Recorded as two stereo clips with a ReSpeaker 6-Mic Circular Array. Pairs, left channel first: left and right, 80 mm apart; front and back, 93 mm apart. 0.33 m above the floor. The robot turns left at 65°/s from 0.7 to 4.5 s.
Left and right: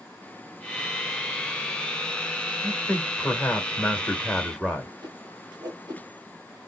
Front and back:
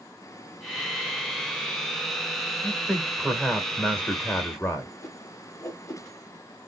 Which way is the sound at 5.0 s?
55° right.